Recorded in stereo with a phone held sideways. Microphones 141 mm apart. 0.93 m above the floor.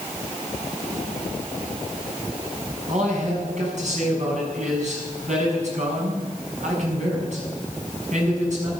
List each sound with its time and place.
2.9 s a man speaking: 60° right (ahead or behind), 6.5 m